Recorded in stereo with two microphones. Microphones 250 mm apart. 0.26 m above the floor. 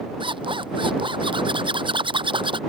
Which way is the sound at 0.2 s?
20° right (ahead or behind).